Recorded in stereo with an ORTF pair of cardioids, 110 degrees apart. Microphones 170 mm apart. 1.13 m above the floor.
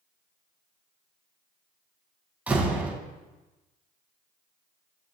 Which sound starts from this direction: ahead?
A door slam, at 2.5 s.